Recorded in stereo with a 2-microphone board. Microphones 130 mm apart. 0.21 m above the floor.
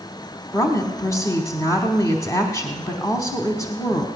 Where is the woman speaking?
25° left (ahead or behind), 1.2 m.